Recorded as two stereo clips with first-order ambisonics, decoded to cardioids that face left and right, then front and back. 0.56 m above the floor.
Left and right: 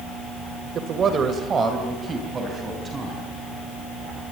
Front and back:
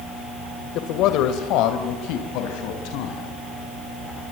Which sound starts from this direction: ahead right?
A man speaking, at 0.8 s.